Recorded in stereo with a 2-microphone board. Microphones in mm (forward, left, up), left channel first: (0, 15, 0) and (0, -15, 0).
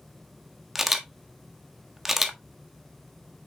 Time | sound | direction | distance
0.8 | a camera shutter | 10° right (ahead or behind) | 1.2 m